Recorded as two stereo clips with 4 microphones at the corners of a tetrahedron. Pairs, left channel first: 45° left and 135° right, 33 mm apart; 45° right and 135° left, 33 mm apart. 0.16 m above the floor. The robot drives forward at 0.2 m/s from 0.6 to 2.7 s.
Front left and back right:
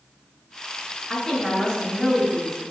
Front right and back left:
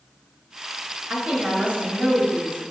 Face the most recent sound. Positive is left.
turn(degrees=125)